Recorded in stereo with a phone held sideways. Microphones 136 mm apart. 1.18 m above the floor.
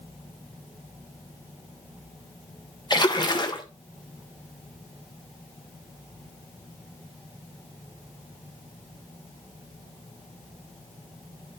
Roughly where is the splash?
Left.